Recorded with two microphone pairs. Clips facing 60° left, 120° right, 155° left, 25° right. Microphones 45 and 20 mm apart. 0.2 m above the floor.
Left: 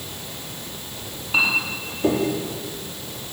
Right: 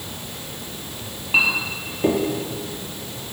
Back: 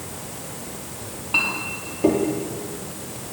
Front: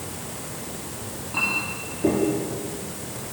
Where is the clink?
Straight behind, 3.5 m.